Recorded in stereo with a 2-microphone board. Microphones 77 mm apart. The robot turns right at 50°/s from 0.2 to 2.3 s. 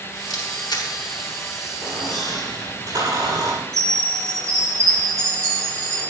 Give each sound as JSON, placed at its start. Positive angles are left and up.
{"t": 0.3, "sound": "a camera shutter", "side_deg": 65, "distance_m": 4.0}
{"t": 1.8, "sound": "a squeak", "side_deg": -85, "distance_m": 8.5}
{"t": 3.7, "sound": "a chime", "side_deg": -45, "distance_m": 8.0}